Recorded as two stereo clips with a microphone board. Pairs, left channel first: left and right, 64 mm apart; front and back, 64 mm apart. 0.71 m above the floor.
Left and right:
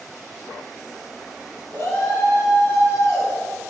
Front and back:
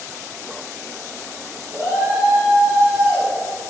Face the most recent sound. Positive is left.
turn(degrees=115)